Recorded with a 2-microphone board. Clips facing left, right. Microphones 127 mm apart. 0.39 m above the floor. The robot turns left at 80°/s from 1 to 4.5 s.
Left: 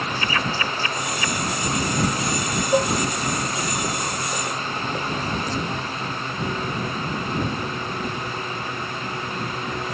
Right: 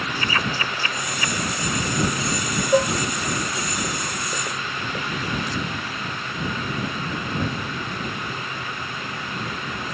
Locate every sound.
2.7 s dishes clattering: 10° right (ahead or behind); by 2.9 s 5° left (ahead or behind)